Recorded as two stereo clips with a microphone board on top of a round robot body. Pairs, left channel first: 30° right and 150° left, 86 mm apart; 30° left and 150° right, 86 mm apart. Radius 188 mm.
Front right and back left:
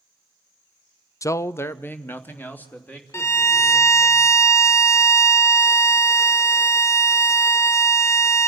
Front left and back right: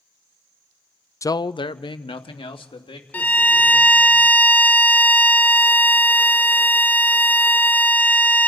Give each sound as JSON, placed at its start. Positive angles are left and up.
{"t": 1.2, "sound": "a man speaking", "azimuth_deg": 0, "distance_m": 0.6}
{"t": 3.1, "sound": "a violin", "azimuth_deg": -20, "distance_m": 1.1}